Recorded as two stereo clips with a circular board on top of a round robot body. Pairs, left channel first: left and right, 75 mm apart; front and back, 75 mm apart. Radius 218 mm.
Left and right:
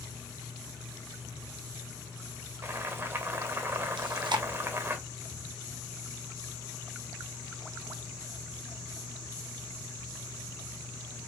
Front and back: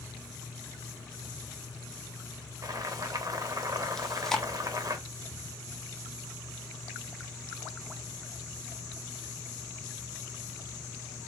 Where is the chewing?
85° right, 0.8 m.